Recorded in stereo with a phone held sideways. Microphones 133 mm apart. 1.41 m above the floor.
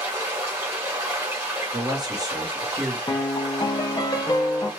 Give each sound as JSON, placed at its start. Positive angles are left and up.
{"t": 0.0, "sound": "running water", "side_deg": -20, "distance_m": 1.5}
{"t": 1.7, "sound": "a man speaking", "side_deg": -30, "distance_m": 0.9}
{"t": 3.1, "sound": "a piano", "side_deg": 30, "distance_m": 0.5}